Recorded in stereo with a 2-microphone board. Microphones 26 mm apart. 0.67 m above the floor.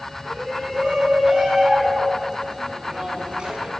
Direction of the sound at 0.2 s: 30° right (ahead or behind).